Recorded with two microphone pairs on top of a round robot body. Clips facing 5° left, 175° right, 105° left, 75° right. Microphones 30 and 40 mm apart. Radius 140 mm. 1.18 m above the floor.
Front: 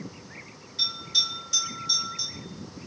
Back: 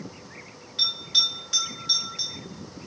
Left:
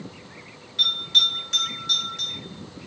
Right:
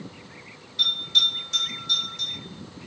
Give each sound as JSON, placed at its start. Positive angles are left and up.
{"t": 0.8, "sound": "a bell", "azimuth_deg": 135, "distance_m": 1.8}